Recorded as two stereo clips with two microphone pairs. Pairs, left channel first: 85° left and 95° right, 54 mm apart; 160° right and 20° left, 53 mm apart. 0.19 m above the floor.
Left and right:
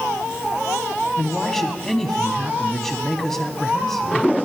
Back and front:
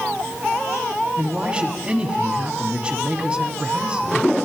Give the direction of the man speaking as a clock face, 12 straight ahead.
11 o'clock.